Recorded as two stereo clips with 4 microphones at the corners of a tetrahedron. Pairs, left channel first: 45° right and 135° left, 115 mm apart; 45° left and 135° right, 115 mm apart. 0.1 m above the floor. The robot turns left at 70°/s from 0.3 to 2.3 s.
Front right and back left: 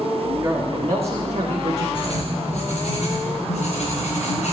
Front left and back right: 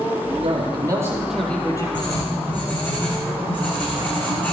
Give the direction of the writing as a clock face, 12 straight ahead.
12 o'clock.